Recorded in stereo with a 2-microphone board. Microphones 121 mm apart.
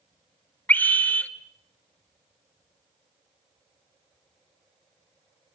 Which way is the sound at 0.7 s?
15° left (ahead or behind).